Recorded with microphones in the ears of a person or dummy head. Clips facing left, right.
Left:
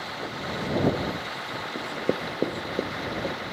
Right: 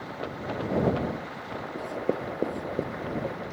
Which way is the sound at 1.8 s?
10° left (ahead or behind).